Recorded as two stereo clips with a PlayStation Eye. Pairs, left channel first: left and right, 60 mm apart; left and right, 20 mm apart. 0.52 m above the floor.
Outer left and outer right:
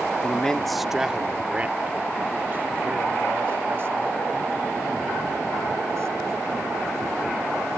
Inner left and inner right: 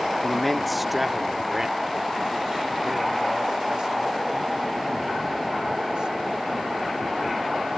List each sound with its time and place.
0.2 s a man speaking: 20° left (ahead or behind); by 7.8 s 45° right (ahead or behind)